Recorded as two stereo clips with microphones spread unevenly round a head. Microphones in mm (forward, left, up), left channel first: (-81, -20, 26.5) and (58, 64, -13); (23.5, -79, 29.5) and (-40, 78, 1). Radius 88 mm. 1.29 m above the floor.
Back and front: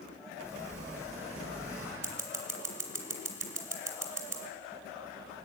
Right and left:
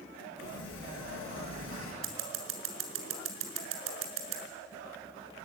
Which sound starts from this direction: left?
Scissors, at 2.0 s.